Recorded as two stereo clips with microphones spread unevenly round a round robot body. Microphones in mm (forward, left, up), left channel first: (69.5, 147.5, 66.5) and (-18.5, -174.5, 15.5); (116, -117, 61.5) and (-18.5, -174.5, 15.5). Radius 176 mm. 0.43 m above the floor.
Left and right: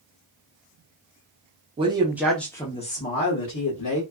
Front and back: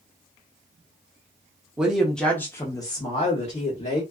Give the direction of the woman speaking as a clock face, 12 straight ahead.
4 o'clock.